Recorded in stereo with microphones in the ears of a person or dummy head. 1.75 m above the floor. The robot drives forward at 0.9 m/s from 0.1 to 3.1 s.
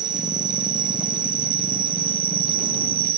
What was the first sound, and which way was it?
An insect, 20° right (ahead or behind).